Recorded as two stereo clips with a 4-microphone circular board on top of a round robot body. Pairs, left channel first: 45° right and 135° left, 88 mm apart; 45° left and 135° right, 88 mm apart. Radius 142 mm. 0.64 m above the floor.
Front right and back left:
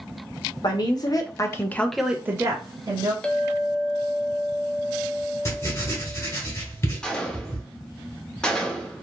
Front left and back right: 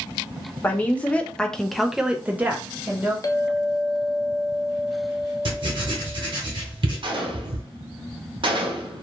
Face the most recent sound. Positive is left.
turn(degrees=-125)